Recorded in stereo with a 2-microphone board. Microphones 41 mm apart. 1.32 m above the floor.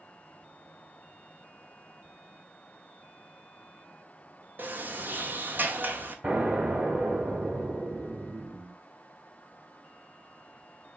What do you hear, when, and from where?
4.6 s a sliding door: 55° right (ahead or behind), 1.3 m
6.2 s an explosion: 45° right (ahead or behind), 2.5 m